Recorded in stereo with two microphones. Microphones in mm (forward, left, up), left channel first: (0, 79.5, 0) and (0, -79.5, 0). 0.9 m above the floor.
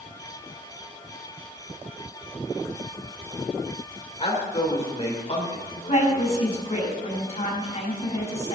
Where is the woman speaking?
55° left (ahead or behind), 4.5 m.